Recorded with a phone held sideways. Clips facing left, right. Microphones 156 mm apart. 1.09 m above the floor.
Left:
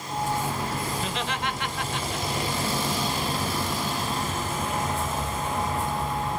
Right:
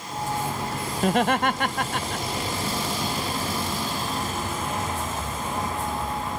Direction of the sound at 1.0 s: 55° right (ahead or behind).